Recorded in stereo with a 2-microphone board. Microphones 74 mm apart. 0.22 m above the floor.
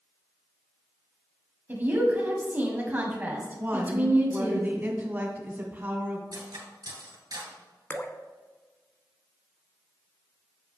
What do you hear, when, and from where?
1.7 s a woman speaking: 25° right (ahead or behind), 1.7 m
3.6 s a woman speaking: 25° right (ahead or behind), 1.6 m
6.3 s cutlery clinking: 60° right (ahead or behind), 2.5 m
7.9 s dripping: 25° left (ahead or behind), 0.6 m